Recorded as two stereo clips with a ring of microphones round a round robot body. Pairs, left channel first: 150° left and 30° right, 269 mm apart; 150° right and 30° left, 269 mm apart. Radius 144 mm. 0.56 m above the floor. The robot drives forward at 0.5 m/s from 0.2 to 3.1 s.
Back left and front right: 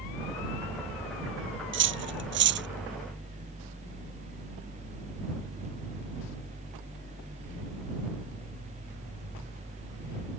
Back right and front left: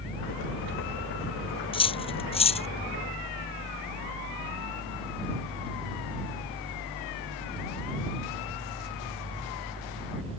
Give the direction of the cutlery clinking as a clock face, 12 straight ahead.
3 o'clock.